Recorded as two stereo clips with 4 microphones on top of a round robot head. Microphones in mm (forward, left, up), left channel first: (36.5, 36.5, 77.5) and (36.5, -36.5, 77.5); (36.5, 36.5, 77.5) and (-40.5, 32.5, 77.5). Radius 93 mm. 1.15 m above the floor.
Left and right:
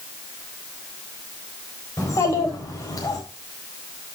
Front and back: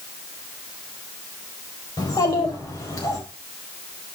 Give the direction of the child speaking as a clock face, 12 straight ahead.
11 o'clock.